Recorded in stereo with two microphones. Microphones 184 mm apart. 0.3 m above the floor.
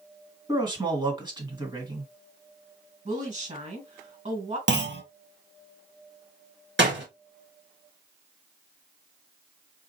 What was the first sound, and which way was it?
A man speaking, 25° right (ahead or behind).